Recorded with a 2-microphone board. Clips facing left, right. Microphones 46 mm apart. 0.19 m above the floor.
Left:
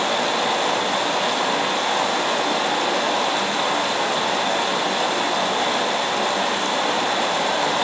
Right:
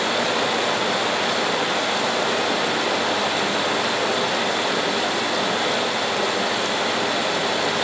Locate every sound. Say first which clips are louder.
0.0 s running water: even; 35° left (ahead or behind), 7.5 m